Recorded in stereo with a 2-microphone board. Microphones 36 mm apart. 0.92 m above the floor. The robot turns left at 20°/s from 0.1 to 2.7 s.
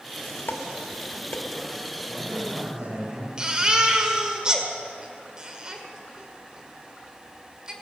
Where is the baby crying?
25° right (ahead or behind), 1.7 m.